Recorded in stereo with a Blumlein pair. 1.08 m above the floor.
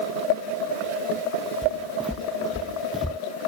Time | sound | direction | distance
1.6 | footsteps | straight ahead | ?